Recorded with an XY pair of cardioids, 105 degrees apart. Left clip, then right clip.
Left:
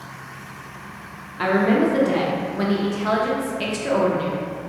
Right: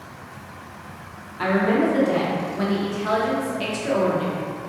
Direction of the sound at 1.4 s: 20° left.